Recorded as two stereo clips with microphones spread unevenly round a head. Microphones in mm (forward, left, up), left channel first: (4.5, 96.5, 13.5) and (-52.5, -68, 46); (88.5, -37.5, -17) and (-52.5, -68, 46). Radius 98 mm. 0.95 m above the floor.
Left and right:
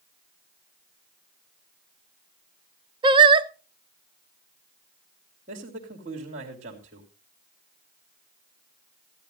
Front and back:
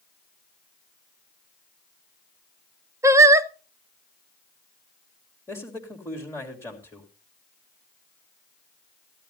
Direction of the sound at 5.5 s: 55° right.